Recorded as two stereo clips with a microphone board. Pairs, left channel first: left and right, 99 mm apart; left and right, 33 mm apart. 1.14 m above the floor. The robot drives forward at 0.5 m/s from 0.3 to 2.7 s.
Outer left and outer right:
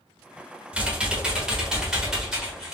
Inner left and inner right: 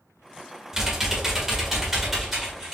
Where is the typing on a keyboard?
10° right (ahead or behind), 0.7 m; by 2.8 s 5° right (ahead or behind), 1.6 m.